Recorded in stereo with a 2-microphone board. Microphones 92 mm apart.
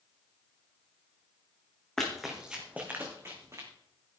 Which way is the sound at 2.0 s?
5° left (ahead or behind).